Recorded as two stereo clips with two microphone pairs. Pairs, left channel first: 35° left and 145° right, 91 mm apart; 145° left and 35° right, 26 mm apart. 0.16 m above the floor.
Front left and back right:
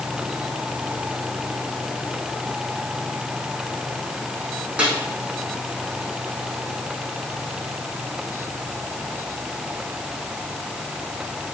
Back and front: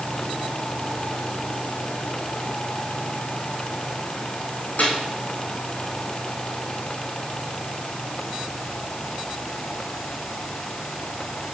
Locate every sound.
4.8 s a snare drum: 140° left, 6.5 m